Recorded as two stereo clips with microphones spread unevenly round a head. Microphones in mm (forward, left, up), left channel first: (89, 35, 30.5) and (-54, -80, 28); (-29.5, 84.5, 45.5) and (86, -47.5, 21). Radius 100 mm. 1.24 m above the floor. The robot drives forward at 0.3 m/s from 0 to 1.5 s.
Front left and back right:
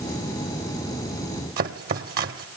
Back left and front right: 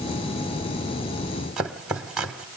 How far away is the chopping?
About 1.0 m.